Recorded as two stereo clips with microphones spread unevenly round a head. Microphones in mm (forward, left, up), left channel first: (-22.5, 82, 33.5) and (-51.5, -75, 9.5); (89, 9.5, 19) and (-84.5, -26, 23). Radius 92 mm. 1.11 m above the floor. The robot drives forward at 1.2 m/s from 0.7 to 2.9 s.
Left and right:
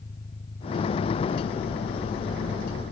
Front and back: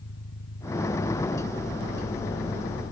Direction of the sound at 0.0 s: 20° left.